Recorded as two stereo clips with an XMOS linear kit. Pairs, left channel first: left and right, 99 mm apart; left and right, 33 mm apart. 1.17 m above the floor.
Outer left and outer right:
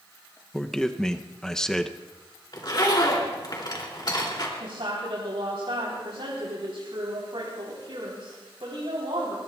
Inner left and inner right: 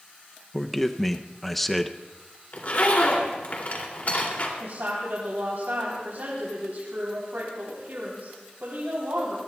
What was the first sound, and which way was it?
A man speaking, 5° left (ahead or behind).